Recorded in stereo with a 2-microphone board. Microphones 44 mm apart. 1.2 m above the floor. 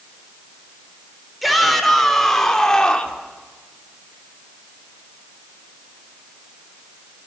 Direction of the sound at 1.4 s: Centre (ahead or behind).